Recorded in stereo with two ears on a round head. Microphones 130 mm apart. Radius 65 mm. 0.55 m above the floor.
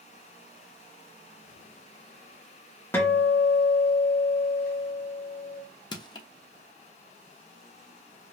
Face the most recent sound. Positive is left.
turn(degrees=30)  # may be behind; listen again after turning